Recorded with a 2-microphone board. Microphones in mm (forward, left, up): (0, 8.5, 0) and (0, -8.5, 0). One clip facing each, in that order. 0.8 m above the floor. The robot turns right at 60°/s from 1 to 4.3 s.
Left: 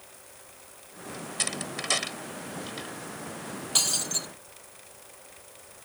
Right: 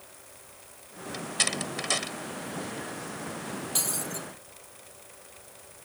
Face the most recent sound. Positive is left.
turn(degrees=70)